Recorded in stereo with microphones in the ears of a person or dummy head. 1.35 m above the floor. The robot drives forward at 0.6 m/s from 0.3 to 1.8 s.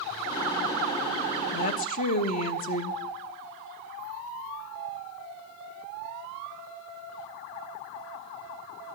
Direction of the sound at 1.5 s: 50° left (ahead or behind).